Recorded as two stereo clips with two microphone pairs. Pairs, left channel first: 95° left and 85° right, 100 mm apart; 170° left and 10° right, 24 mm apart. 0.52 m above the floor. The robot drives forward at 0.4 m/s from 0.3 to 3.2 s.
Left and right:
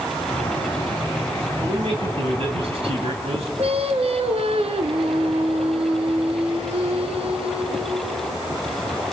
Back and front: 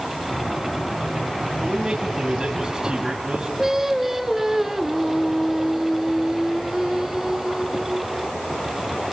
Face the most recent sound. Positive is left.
turn(degrees=-95)